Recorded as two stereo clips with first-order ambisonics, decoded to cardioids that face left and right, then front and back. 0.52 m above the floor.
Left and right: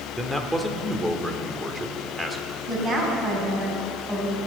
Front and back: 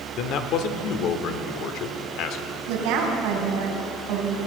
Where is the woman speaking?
155° right, 3.5 m.